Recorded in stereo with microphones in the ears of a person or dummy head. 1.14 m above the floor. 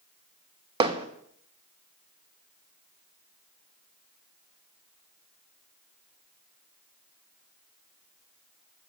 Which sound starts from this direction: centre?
Hammering, at 0.8 s.